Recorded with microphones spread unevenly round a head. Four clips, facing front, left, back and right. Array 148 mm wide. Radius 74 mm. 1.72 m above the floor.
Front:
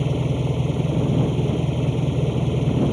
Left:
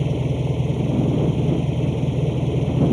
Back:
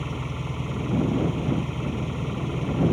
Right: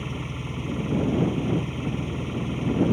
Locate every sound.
0.0 s an engine running: 50° left